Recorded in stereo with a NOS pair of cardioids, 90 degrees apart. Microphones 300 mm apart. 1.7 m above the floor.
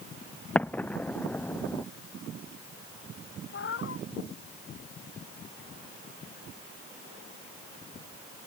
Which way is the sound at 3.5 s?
45° left.